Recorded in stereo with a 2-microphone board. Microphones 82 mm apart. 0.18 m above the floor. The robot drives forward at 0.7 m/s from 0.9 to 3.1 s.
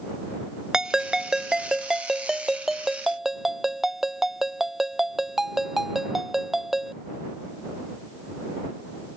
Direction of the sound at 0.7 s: 10° right (ahead or behind).